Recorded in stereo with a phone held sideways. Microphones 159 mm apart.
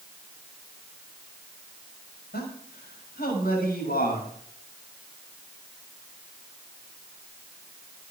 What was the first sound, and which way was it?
A man speaking, 80° left.